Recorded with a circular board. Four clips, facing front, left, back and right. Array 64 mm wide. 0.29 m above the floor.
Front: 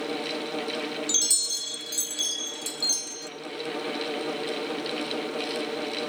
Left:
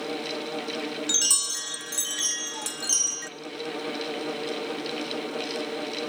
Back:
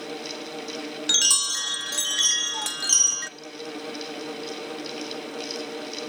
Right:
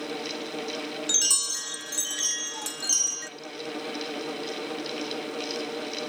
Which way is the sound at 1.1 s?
175° left.